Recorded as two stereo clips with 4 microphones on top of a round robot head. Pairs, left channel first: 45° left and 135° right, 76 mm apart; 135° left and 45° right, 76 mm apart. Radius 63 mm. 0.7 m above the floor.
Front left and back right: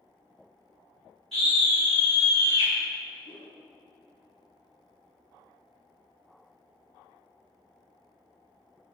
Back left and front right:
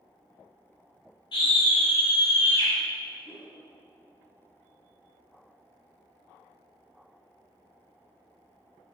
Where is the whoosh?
70° left, 1.9 m.